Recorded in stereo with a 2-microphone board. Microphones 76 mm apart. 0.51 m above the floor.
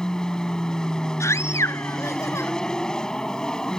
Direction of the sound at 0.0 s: 10° left (ahead or behind).